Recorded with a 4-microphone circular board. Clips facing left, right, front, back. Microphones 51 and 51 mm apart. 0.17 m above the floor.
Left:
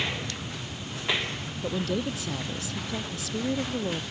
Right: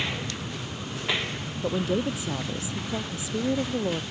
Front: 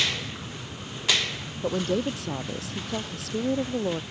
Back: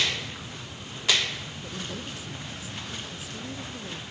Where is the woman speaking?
20° right.